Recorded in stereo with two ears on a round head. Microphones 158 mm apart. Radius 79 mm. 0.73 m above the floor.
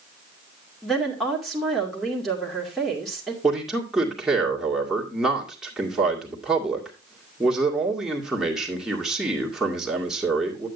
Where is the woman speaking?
Centre (ahead or behind), 2.5 m.